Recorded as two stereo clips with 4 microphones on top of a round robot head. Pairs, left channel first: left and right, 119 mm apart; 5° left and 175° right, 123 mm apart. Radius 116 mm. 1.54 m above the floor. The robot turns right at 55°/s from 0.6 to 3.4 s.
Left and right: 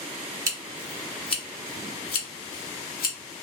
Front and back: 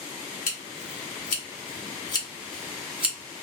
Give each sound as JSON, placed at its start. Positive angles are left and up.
{"t": 0.5, "sound": "scissors", "azimuth_deg": -25, "distance_m": 1.1}